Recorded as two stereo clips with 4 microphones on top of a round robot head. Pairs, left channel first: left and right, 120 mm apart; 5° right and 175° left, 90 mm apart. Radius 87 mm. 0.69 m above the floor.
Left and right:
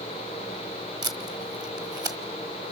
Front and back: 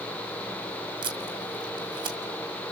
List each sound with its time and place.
1.0 s tape being pulled: 145° right, 1.7 m